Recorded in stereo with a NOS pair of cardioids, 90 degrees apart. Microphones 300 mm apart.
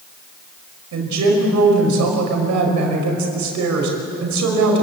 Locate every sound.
0.9 s a woman speaking: 70° right, 5.5 m